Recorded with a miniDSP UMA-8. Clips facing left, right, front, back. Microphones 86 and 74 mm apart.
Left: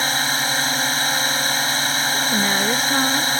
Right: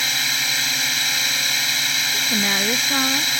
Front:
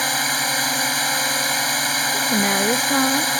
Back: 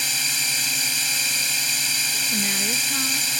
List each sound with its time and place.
0.0 s a drone: 35° left
2.1 s a woman speaking: 5° left